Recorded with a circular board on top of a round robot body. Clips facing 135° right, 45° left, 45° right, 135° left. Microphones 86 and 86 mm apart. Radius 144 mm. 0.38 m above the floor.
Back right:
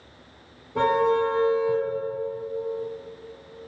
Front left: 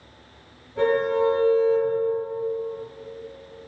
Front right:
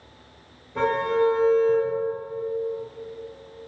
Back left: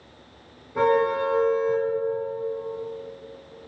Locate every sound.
0.8 s a car horn: 140° right, 3 m